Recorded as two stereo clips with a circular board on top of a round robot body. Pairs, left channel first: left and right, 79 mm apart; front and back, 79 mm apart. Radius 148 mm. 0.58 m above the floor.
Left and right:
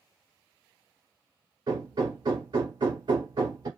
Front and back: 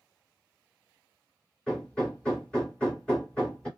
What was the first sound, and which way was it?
Hammering, 80° right.